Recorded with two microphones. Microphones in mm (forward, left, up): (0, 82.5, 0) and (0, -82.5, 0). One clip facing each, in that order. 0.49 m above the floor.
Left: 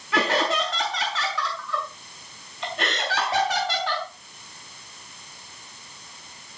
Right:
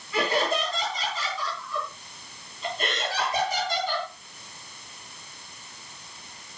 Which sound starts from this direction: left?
Laughter, at 0.1 s.